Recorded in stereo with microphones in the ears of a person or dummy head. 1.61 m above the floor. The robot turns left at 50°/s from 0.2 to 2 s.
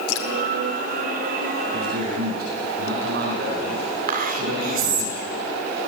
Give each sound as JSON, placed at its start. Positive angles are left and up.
{"t": 0.1, "sound": "dripping", "side_deg": 65, "distance_m": 2.5}
{"t": 1.7, "sound": "a man speaking", "side_deg": -70, "distance_m": 9.5}
{"t": 4.1, "sound": "whispering", "side_deg": -50, "distance_m": 4.5}